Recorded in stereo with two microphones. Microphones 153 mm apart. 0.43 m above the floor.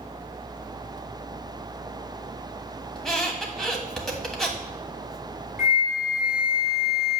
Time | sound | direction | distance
3.0 | a squeak | 5° left (ahead or behind) | 1.5 m
5.6 | a flute | 5° right (ahead or behind) | 1.2 m